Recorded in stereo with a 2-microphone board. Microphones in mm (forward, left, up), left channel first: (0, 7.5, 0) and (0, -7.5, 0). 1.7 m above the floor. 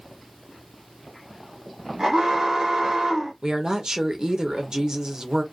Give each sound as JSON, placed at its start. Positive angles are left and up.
{"t": 2.0, "sound": "an alarm", "side_deg": -80, "distance_m": 1.4}
{"t": 3.4, "sound": "a woman speaking", "side_deg": -60, "distance_m": 0.8}